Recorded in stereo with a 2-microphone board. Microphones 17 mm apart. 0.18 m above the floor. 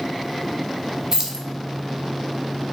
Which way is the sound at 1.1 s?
30° right (ahead or behind).